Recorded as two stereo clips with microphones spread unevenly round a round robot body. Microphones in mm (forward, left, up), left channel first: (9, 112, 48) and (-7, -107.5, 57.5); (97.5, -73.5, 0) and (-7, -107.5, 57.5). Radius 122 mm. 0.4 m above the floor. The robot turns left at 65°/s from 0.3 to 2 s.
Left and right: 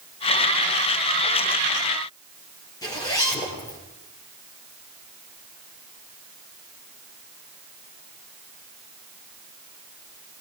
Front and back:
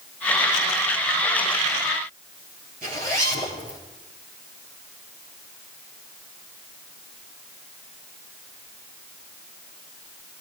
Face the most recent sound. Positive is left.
turn(degrees=160)